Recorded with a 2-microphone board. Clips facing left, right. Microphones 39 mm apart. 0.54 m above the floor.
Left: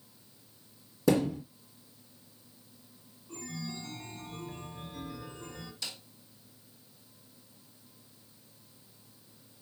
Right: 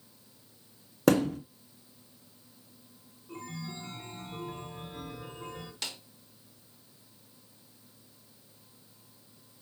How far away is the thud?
About 1.6 m.